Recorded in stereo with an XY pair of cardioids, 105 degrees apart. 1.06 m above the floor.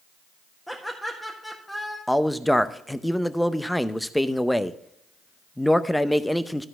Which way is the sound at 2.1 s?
5° left.